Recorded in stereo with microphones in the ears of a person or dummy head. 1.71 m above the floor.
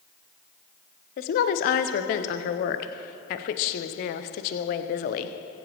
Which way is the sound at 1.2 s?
45° left (ahead or behind).